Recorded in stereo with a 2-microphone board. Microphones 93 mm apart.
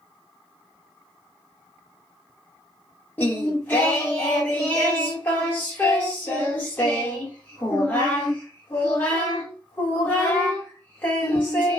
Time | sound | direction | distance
3.2 | singing | 20° left (ahead or behind) | 1.2 m